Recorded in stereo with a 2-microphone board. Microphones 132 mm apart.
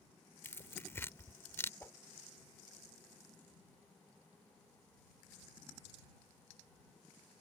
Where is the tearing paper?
20° left (ahead or behind).